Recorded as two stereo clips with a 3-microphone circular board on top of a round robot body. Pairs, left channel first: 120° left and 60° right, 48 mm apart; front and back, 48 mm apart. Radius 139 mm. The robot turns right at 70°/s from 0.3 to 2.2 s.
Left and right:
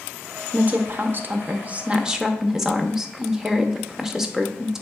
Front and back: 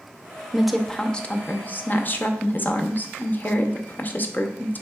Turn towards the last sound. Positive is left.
turn(degrees=15)